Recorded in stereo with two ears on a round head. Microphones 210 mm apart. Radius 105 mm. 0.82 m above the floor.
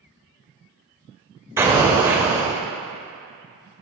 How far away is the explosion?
About 0.6 m.